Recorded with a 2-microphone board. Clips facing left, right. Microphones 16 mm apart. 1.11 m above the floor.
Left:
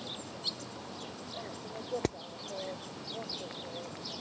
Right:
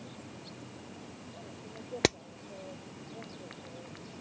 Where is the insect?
85° left.